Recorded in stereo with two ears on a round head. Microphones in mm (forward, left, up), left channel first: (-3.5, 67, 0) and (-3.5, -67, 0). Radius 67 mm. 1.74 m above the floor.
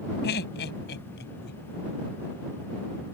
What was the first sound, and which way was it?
Laughter, 80° left.